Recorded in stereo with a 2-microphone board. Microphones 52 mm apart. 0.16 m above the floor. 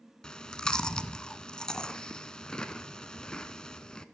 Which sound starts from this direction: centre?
Chewing, at 0.2 s.